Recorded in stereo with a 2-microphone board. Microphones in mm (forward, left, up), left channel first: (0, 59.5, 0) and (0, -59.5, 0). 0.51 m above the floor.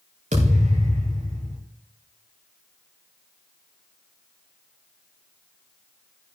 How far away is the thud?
About 4.5 m.